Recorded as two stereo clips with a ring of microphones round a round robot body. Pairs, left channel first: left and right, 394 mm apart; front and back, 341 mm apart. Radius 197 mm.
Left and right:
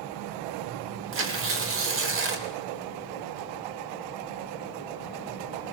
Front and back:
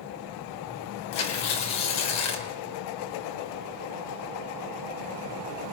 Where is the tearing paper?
30° right, 3 m.